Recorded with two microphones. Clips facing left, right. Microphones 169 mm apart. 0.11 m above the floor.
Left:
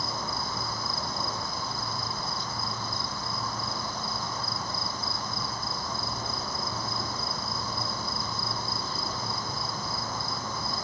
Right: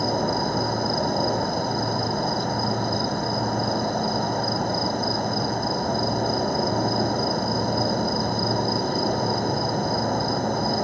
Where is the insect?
65° right (ahead or behind).